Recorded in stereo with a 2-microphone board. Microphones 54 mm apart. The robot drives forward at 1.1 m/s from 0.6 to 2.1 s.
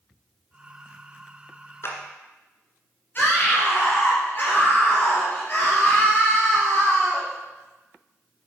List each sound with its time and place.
1.8 s a clap: 50° left (ahead or behind), 1.8 m; by 2.0 s 45° left (ahead or behind), 1.8 m
3.1 s a scream: 40° left (ahead or behind), 3.5 m